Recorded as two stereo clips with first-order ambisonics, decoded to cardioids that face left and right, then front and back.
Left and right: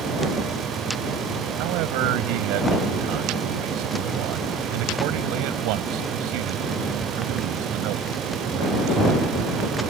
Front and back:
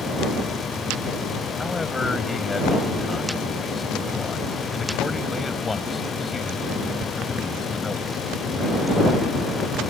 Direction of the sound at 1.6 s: 80° right.